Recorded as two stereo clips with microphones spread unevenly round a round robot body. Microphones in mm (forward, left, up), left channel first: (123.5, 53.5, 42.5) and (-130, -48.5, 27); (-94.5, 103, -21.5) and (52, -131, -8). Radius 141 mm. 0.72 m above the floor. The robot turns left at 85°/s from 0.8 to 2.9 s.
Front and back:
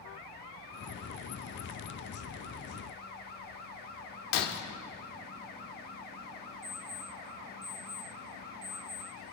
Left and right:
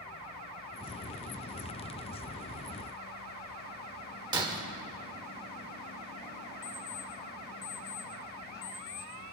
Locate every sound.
4.3 s breaking glass: 20° left, 1.2 m
6.6 s an alarm clock: 110° left, 3 m